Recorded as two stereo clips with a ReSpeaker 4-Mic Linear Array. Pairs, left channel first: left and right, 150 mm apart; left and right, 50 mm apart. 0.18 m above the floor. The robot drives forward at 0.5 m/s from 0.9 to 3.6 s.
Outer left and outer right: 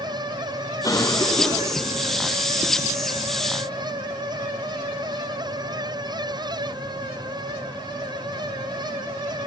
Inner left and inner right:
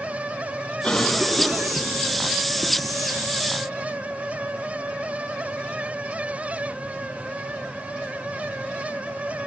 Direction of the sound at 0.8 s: 25° left (ahead or behind).